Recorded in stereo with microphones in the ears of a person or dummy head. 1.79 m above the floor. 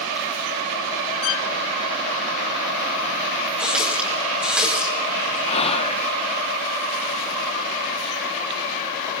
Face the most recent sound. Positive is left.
turn(degrees=30)  # may be behind; listen again after turning